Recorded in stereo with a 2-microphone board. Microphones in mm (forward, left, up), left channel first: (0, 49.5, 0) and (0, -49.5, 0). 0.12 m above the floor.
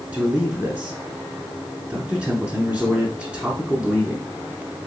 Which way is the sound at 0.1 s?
15° right (ahead or behind).